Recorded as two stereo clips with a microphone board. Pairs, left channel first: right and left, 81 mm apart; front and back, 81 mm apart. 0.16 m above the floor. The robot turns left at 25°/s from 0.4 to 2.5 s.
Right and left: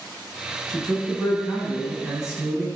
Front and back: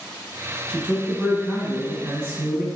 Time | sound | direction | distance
0.7 | a man speaking | 165° right | 1.1 m